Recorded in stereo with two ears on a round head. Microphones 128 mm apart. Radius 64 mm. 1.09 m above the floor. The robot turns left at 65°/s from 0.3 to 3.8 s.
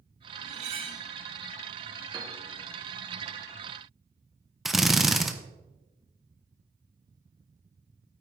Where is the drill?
Centre (ahead or behind), 0.8 m.